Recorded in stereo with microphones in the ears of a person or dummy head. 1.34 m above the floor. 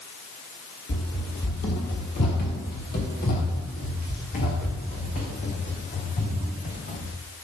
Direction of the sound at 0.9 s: 40° left (ahead or behind).